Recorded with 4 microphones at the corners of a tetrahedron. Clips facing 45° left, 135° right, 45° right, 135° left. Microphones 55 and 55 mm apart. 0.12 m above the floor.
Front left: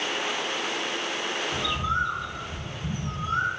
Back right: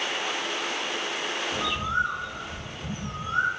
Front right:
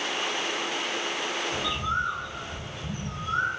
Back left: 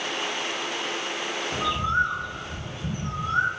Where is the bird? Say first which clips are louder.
Back right 1 dB, back left 7 dB; 165° left, 1.0 m.